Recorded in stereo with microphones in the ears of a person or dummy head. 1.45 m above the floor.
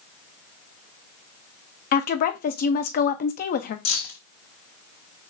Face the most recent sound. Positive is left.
turn(degrees=75)  # may be behind; listen again after turning